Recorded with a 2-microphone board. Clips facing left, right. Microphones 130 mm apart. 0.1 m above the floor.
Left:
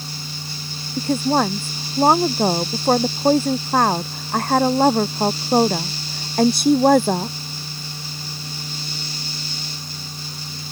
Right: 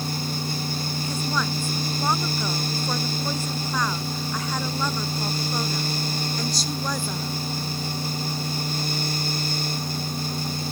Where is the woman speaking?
55° left (ahead or behind); by 7.3 s 65° left (ahead or behind).